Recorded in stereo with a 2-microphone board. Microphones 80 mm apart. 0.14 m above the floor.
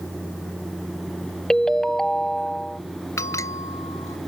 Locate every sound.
1.5 s a ringtone: 5° left (ahead or behind)
3.2 s a bell: 45° left (ahead or behind)